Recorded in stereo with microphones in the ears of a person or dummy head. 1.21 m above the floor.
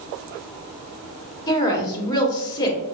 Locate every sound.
1.5 s a woman speaking: 20° left (ahead or behind), 1.5 m